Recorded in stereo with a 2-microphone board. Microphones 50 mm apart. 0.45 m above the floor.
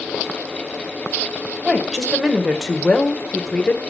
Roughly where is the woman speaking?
Centre.